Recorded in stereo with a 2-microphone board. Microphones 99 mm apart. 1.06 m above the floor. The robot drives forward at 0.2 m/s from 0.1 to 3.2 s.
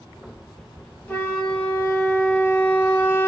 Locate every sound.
1.1 s a flute: 10° left (ahead or behind), 0.9 m; by 3.3 s 20° left (ahead or behind), 0.5 m